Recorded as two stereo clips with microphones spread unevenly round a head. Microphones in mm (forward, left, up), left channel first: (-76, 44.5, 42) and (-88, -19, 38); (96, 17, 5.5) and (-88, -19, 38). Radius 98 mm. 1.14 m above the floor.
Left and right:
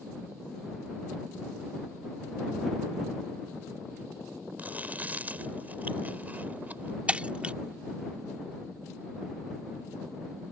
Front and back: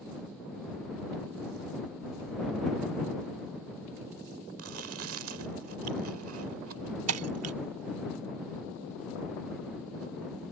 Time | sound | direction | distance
4.6 | chewing | 165° right | ?
7.1 | breaking glass | 170° right | ?